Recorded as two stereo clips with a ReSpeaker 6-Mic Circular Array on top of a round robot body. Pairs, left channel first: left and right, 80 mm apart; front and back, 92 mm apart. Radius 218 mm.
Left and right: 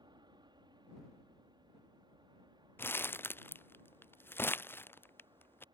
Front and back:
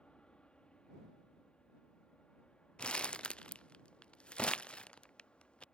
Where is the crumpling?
70° left.